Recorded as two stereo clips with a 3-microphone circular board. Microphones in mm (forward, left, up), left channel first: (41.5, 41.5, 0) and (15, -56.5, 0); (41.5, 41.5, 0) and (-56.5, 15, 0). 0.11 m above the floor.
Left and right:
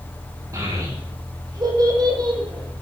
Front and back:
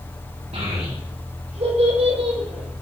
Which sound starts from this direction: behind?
A child speaking, at 0.5 s.